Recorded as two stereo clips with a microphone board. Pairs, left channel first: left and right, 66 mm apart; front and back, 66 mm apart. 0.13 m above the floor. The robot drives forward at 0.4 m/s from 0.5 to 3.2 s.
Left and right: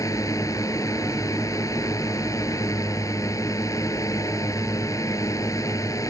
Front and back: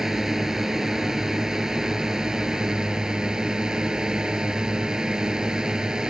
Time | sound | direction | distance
0.0 | a drone | 100° left | ?